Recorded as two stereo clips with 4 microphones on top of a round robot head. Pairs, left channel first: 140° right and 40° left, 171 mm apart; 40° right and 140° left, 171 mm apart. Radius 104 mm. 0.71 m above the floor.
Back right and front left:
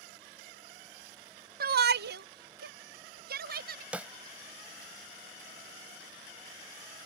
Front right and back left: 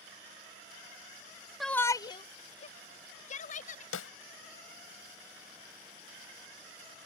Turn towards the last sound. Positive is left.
turn(degrees=-40)